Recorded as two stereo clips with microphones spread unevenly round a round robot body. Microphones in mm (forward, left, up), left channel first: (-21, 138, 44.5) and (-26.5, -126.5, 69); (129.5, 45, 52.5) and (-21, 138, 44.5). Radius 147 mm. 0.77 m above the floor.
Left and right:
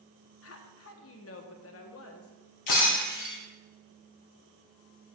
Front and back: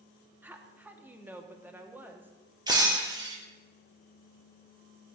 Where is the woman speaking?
70° left, 1.6 m.